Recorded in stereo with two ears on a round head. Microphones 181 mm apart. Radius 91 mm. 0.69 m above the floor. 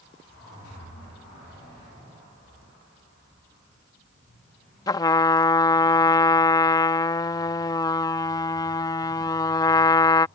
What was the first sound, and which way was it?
A trumpet, 20° left (ahead or behind).